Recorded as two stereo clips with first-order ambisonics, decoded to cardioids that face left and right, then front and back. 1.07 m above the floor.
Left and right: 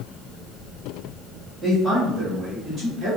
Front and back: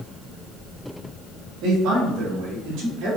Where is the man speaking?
165° right, 1.5 m; by 3.2 s 160° right, 3 m.